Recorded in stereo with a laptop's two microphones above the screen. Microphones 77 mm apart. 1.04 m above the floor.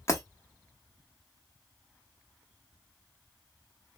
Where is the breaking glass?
40° left (ahead or behind), 0.8 m.